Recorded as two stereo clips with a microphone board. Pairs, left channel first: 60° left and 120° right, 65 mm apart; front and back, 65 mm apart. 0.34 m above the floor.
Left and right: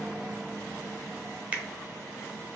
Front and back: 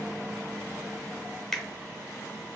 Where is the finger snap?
80° right, 0.6 m.